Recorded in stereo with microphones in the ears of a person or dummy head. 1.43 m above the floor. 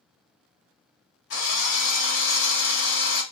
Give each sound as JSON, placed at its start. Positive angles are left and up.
{"t": 1.3, "sound": "a drill", "side_deg": 60, "distance_m": 1.3}